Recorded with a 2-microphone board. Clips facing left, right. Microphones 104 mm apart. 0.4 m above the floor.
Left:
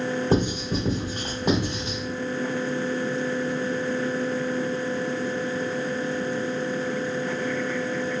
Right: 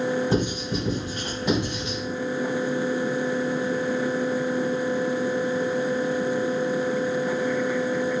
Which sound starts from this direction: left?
Writing, at 0.3 s.